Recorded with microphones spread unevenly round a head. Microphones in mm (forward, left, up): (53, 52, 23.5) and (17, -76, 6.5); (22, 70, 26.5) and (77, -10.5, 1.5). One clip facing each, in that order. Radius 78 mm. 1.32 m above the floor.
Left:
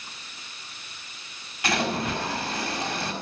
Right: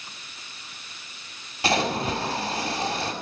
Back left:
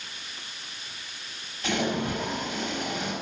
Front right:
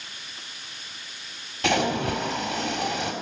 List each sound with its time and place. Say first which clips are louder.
1.6 s a splash: right 2 dB, front right 4 dB; 45° right, 4.5 m